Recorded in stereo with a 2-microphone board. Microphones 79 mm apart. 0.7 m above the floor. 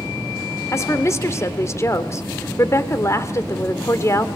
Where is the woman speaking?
35° left (ahead or behind), 2.0 m.